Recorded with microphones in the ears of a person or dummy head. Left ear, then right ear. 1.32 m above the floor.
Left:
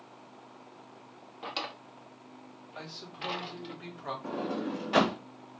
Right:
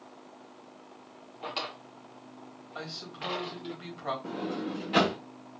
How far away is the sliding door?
About 1.0 m.